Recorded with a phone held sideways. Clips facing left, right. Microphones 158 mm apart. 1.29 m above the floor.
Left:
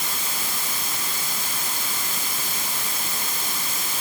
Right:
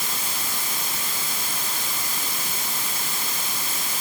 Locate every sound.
Only background noise.